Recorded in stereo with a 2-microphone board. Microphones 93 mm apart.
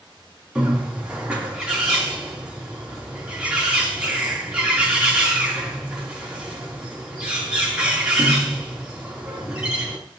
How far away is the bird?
About 3.5 m.